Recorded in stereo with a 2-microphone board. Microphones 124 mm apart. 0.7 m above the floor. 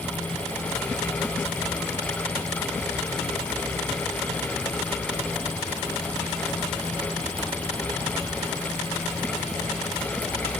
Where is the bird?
No bird in this recording.